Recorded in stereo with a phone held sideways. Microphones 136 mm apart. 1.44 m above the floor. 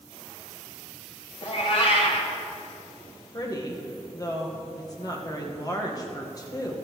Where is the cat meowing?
50° left (ahead or behind), 1.7 m.